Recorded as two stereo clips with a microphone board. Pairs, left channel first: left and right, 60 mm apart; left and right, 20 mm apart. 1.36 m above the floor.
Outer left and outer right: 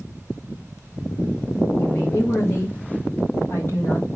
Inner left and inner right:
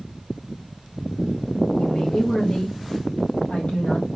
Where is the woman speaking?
40° left (ahead or behind), 2.5 m.